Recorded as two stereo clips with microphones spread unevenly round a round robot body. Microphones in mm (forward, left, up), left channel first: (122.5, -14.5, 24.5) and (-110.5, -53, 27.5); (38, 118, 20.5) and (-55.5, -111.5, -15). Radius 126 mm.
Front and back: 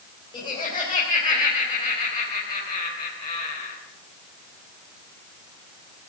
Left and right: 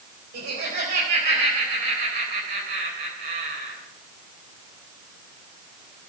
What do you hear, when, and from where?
0.3 s laughter: 60° right, 3.5 m